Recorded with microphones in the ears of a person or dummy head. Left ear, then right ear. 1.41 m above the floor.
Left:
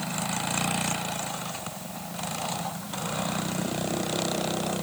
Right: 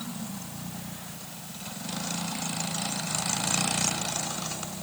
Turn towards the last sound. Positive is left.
No sound to turn to.